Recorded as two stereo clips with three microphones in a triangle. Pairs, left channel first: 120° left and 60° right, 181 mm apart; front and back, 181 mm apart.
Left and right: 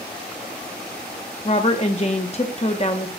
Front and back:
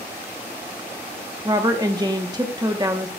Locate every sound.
1.4 s a woman speaking: 130° left, 0.9 m